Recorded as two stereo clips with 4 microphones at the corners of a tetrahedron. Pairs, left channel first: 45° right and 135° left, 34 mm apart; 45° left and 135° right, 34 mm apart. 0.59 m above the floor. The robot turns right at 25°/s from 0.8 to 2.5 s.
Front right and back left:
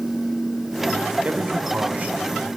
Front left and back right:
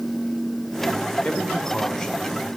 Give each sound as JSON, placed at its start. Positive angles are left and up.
{"t": 1.2, "sound": "a man speaking", "azimuth_deg": 95, "distance_m": 2.0}